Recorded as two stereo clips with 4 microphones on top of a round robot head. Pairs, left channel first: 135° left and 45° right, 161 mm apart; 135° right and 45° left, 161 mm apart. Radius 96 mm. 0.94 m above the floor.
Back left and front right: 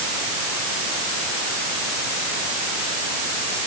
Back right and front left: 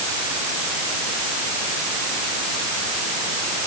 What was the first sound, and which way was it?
Only background noise.